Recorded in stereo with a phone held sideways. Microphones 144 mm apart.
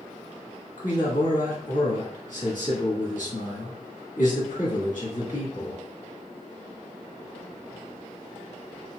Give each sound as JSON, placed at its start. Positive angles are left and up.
{"t": 0.8, "sound": "a man speaking", "side_deg": 70, "distance_m": 1.6}